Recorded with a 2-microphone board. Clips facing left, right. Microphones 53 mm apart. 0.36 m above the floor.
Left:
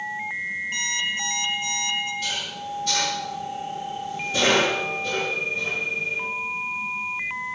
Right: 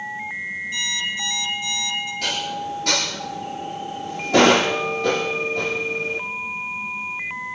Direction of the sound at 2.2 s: 75° right (ahead or behind).